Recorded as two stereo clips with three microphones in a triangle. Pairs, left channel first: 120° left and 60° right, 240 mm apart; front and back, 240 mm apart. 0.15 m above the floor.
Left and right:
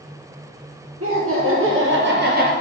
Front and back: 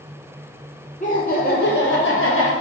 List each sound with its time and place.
1.0 s laughter: 55° right, 3.5 m; by 2.5 s 10° right, 2.5 m